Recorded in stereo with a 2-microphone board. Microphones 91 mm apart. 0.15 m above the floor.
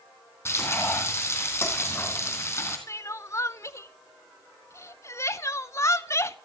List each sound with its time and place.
0.5 s frying: 30° left (ahead or behind), 3.5 m
2.9 s crying: 35° left (ahead or behind), 0.5 m